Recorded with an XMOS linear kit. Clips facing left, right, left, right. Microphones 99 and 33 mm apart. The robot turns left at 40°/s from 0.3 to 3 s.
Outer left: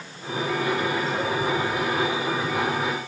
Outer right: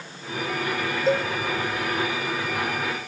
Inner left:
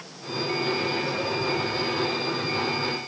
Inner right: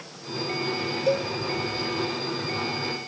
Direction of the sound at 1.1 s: 80° right.